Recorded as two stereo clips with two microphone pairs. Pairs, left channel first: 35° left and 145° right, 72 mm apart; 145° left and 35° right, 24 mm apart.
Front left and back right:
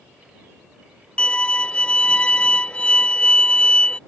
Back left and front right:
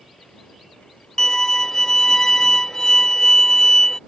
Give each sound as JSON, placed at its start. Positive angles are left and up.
{"t": 1.2, "sound": "a violin", "azimuth_deg": 95}